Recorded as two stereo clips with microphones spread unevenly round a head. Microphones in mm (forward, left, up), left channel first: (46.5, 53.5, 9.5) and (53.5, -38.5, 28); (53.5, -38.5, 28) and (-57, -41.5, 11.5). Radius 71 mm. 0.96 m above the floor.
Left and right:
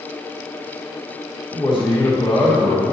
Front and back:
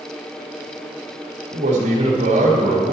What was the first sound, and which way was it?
A man speaking, 165° left.